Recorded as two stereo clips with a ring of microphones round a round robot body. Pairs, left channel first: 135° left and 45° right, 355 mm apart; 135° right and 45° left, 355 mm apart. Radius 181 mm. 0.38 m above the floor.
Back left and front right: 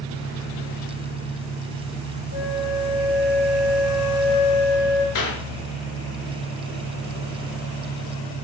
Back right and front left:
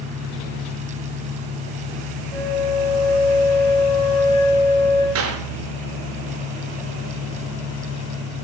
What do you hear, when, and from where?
0.0 s an engine running: 100° left, 6 m
2.3 s a flute: 145° left, 3.5 m
5.2 s a clap: 95° left, 4.5 m